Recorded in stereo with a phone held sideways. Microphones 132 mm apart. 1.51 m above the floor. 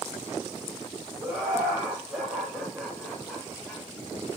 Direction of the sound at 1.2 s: 20° right (ahead or behind).